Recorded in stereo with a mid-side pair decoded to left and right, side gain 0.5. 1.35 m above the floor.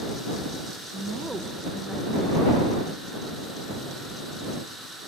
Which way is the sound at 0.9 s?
15° right.